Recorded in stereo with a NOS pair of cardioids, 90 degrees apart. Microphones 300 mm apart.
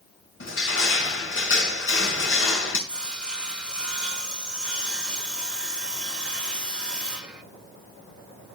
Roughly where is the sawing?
Ahead.